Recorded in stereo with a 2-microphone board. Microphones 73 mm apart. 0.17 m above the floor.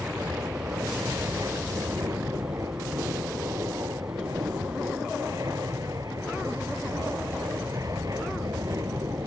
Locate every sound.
0.0 s an aircraft: 50° right (ahead or behind)